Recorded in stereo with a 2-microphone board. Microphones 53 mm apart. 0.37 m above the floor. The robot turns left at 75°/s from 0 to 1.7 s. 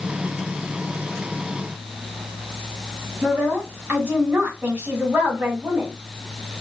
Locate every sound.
3.2 s a woman speaking: 35° right (ahead or behind), 1.4 m